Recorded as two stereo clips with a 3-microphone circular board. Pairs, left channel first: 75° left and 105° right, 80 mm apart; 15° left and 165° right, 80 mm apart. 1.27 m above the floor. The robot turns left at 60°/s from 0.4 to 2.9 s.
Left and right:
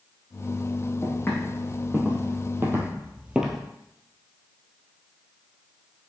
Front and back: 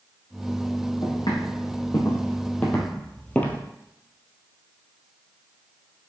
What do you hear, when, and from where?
1.0 s footsteps: 30° left, 3.5 m; by 3.6 s 15° right, 1.4 m